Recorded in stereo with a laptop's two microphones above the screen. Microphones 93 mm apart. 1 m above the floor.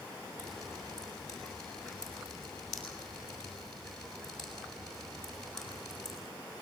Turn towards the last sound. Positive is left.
turn(degrees=5)  # may be behind; listen again after turning